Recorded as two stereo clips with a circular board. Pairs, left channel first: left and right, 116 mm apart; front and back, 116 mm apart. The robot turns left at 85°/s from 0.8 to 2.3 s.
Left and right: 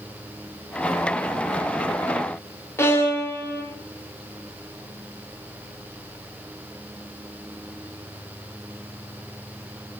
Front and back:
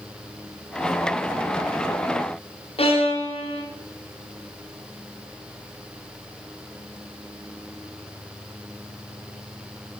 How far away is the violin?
About 0.5 m.